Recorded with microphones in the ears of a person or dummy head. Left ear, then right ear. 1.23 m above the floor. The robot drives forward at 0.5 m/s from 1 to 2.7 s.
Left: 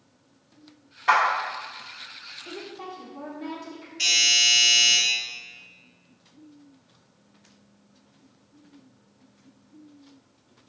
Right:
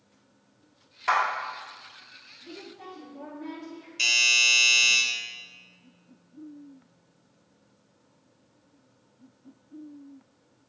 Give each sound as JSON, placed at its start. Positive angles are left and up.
{"t": 1.1, "sound": "a clap", "side_deg": -30, "distance_m": 1.4}
{"t": 2.5, "sound": "a woman speaking", "side_deg": 20, "distance_m": 0.9}
{"t": 4.0, "sound": "a doorbell", "side_deg": -60, "distance_m": 1.3}